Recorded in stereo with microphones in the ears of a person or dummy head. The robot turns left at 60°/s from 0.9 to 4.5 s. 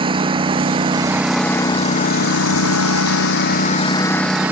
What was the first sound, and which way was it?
A lawn mower, 155° right.